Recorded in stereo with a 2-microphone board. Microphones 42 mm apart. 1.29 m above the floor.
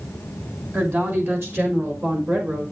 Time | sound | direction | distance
0.7 | a woman speaking | 50° right (ahead or behind) | 2.5 m